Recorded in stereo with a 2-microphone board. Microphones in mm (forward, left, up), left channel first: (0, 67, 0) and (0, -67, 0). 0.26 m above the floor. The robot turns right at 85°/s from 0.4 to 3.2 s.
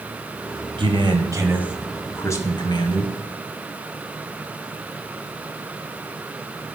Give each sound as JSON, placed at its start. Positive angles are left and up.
{"t": 0.8, "sound": "a man speaking", "azimuth_deg": -90, "distance_m": 1.7}